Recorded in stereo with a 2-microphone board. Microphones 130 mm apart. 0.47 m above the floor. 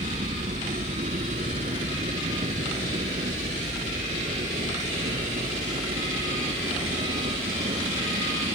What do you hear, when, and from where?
0.0 s a helicopter: 70° right (ahead or behind); by 8.6 s 80° right